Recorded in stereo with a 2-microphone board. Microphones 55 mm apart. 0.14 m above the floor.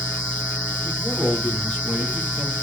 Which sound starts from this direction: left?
A man speaking, at 0.8 s.